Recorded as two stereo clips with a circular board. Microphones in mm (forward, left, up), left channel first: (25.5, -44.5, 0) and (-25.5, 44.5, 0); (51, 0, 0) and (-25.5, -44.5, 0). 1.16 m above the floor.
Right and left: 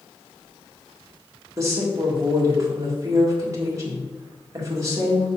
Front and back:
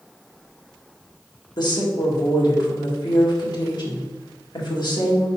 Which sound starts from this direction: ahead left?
A woman speaking, at 1.6 s.